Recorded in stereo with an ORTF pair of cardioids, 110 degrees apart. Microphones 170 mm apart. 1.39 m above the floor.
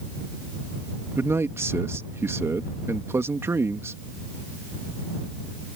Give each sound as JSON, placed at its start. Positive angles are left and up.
{"t": 1.2, "sound": "a man speaking", "azimuth_deg": -15}